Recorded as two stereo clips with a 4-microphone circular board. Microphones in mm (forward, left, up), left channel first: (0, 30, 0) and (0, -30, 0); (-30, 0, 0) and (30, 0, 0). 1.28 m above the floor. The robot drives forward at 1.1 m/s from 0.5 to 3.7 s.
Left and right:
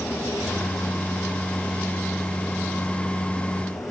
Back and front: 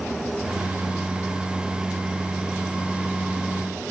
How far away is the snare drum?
No snare drum in this recording.